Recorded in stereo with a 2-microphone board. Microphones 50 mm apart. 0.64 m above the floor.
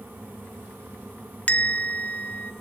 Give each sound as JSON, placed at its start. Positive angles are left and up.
{"t": 1.5, "sound": "a bell", "side_deg": 30, "distance_m": 0.7}